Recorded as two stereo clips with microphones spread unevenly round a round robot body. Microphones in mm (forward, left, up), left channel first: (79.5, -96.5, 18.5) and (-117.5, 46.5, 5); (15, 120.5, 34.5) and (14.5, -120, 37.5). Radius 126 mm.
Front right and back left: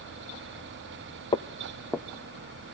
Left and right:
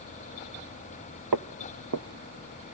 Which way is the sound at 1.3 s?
105° right.